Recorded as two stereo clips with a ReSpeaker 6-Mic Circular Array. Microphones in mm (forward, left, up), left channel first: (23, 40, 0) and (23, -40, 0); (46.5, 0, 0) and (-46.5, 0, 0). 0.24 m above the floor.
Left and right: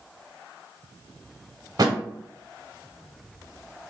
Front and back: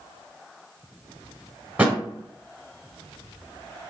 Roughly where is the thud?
Right.